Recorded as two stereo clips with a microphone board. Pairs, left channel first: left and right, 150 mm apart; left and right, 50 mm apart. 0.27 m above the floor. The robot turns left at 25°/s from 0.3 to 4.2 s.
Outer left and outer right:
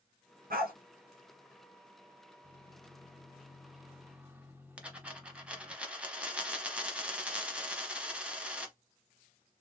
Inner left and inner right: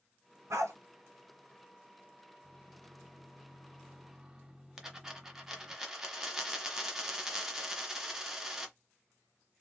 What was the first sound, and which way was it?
A dog barking, 80° right.